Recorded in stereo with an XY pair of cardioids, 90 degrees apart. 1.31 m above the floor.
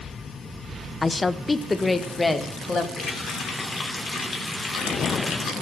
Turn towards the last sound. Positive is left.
turn(degrees=40)